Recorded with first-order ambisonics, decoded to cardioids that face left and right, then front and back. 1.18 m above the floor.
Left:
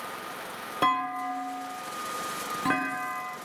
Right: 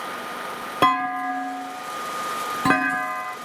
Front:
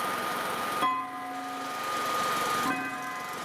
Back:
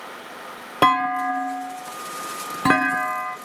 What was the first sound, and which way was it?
A clunk, 150° right.